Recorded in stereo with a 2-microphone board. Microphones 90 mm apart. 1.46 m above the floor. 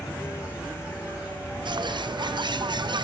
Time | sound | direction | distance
0.0 | an insect | 15° right (ahead or behind) | 4.5 m
1.6 | a bird | 55° right (ahead or behind) | 0.6 m